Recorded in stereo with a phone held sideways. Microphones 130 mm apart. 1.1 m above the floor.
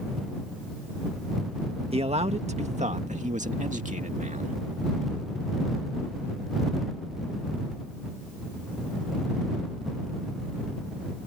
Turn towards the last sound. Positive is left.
turn(degrees=-75)  # may be behind; listen again after turning